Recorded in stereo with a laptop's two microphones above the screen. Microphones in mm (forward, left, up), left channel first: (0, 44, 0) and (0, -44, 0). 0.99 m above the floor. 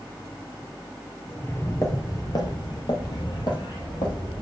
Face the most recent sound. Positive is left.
turn(degrees=60)  # may be behind; listen again after turning